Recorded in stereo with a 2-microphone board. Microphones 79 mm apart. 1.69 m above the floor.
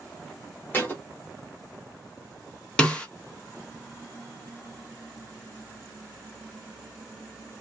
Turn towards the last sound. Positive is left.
turn(degrees=15)  # may be behind; listen again after turning